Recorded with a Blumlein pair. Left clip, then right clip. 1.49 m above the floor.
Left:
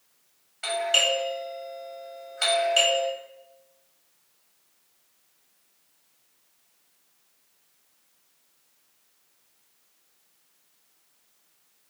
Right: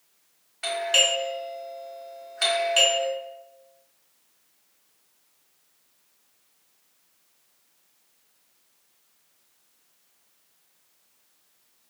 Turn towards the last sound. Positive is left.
turn(degrees=-10)